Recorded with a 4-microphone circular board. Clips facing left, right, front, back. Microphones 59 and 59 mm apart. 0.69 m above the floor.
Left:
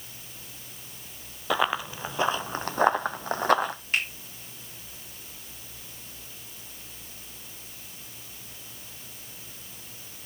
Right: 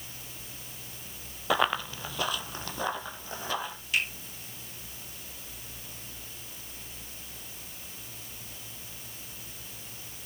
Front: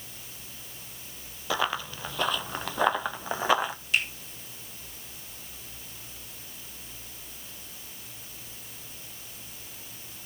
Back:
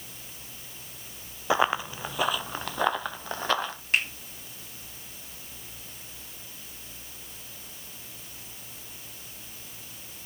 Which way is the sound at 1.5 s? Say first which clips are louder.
Left 1 dB, back 4 dB; straight behind.